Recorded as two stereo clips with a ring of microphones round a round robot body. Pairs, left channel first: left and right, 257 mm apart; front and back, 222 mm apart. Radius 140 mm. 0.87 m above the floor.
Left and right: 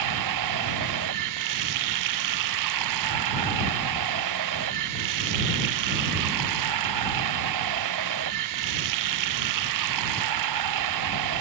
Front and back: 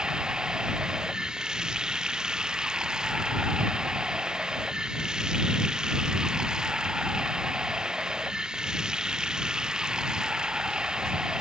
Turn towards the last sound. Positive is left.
turn(degrees=-95)